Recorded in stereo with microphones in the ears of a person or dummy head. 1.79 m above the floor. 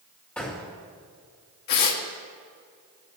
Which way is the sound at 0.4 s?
10° left (ahead or behind).